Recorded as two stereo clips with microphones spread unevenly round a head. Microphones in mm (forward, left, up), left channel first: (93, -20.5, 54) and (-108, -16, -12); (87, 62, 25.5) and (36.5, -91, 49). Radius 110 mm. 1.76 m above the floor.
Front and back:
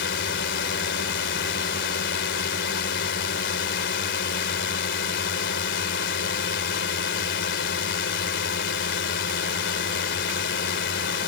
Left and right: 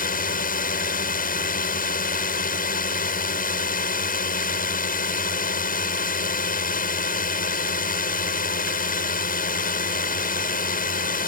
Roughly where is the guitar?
I don't hear a guitar.